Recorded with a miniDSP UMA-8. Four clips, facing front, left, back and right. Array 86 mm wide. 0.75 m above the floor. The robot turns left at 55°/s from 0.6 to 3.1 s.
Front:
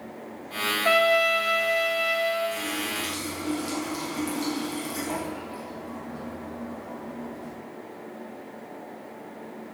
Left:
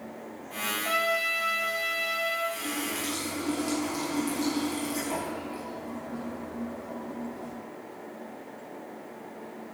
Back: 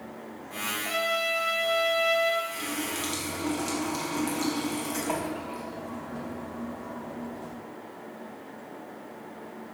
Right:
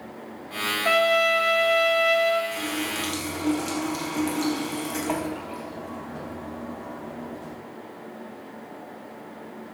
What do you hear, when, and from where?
0.8 s a trumpet: 30° right, 2.5 m; by 2.4 s 115° right, 2.5 m
2.5 s a running tap: 80° right, 4 m; by 7.5 s 115° right, 4 m